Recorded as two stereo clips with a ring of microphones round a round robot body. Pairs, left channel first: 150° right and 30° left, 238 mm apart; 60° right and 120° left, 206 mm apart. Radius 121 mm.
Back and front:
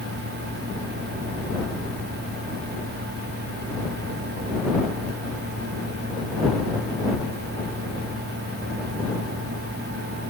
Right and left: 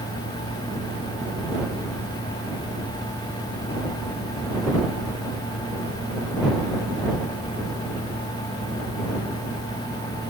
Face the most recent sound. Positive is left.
No sound to turn to.